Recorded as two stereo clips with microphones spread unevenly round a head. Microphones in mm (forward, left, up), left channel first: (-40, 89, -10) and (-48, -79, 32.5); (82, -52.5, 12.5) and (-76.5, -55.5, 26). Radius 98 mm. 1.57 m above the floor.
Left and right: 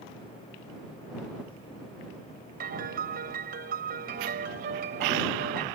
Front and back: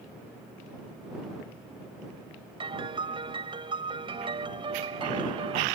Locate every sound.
2.6 s a piano: 120° right